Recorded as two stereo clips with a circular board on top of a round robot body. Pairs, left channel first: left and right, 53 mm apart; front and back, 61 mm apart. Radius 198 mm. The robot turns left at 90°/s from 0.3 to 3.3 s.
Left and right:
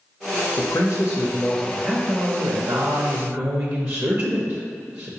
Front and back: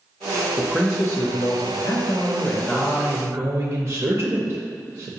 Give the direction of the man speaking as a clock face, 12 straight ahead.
9 o'clock.